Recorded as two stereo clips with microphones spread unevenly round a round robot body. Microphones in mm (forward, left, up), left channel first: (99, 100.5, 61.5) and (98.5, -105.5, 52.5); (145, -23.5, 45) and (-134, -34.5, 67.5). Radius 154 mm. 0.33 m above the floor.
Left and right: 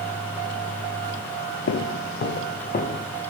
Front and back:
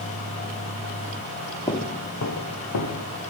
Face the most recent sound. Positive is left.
turn(degrees=40)